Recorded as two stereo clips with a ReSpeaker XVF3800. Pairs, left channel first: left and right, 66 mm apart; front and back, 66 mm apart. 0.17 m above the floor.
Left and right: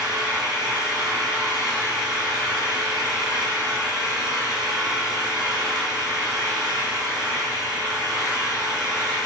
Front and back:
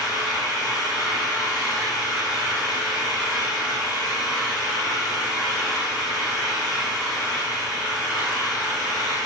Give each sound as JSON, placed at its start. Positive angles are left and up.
{"t": 0.0, "sound": "an engine running", "azimuth_deg": -10, "distance_m": 6.5}